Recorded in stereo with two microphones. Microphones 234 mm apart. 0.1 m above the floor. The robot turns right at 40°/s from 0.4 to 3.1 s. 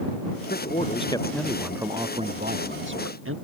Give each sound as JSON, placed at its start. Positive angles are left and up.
{"t": 0.5, "sound": "a man speaking", "azimuth_deg": 140}